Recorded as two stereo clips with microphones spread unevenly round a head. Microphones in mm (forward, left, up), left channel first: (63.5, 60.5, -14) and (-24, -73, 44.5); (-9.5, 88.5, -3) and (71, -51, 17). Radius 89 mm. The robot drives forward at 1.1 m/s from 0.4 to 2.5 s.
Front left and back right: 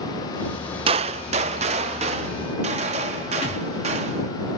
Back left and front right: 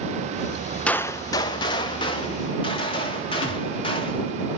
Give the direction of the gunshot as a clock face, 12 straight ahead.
5 o'clock.